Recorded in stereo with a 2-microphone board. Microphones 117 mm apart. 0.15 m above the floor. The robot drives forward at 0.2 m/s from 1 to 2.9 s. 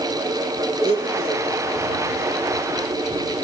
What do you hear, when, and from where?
0.8 s a blender: 50° right (ahead or behind), 7.5 m